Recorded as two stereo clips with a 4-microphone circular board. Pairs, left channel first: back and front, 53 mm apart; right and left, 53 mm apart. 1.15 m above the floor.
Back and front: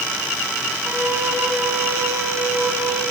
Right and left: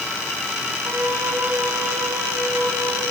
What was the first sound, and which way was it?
A flute, 50° left.